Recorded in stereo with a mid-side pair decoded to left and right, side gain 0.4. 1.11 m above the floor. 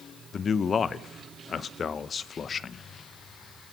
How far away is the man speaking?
About 0.7 m.